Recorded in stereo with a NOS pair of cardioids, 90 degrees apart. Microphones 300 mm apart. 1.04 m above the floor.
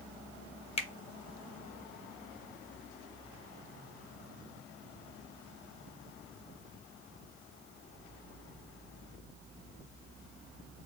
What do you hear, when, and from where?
0.8 s a finger snap: 20° left, 0.7 m